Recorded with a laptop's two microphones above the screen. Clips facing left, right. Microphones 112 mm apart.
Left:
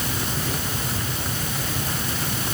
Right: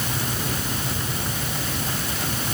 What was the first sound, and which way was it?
Only background noise.